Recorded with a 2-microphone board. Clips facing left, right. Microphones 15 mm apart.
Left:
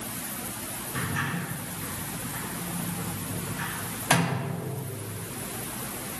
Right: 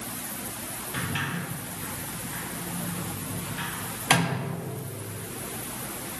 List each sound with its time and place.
0.9 s a sliding door: 65° right (ahead or behind), 3.5 m